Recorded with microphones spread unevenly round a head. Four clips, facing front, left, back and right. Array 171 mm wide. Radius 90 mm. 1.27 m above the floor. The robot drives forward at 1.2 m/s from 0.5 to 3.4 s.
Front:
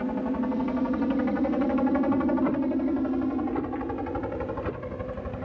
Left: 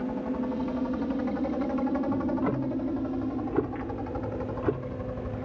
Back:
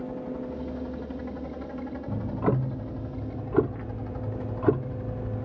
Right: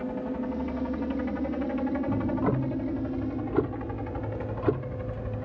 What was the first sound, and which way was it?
A helicopter, straight ahead.